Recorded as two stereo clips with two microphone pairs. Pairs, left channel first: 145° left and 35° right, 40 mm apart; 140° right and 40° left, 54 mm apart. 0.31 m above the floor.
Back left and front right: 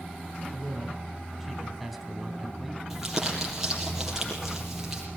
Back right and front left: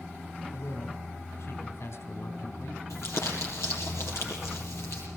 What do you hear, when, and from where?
0.5 s a man speaking: 120° right, 3 m
2.9 s crumpling: 115° right, 6.5 m